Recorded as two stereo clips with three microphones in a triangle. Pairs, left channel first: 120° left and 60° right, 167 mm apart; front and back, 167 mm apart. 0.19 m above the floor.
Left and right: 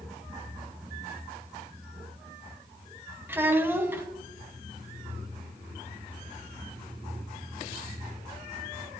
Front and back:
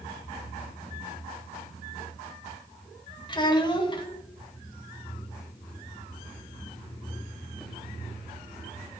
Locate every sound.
3.3 s a child speaking: 5° left, 1.1 m